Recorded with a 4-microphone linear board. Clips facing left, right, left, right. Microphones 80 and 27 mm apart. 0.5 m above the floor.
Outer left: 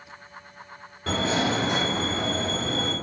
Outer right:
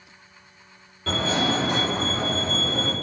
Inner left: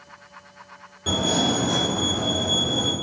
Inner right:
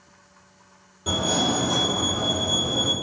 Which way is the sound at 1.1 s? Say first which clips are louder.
Even, inner left 1 dB; 20° left (ahead or behind).